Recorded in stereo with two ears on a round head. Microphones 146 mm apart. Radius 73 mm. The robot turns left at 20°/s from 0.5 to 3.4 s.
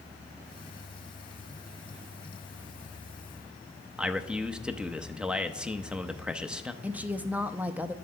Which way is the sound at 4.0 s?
5° right (ahead or behind).